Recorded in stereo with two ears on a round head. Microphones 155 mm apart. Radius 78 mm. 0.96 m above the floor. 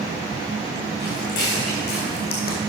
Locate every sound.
1.0 s footsteps: 75° left (ahead or behind), 4.5 m; by 2.6 s 60° left (ahead or behind), 2 m